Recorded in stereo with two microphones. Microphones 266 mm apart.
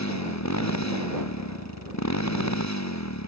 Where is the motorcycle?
90° left; by 3.3 s 85° left.